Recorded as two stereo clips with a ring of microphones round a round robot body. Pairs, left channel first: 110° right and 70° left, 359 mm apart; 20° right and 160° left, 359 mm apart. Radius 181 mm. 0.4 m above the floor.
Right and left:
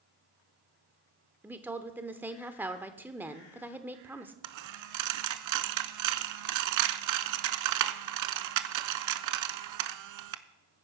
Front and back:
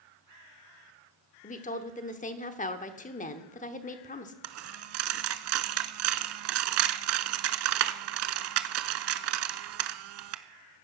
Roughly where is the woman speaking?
Ahead.